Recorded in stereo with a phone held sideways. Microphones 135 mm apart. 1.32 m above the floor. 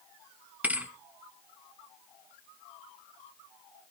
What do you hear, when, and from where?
0.6 s a thud: 10° right (ahead or behind), 1.3 m